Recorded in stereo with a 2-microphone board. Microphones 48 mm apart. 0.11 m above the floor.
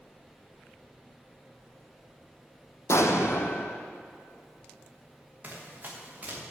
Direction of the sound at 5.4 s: 35° right (ahead or behind).